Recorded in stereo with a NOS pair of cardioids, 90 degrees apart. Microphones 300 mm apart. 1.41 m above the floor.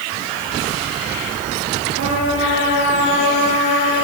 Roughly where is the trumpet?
Ahead right.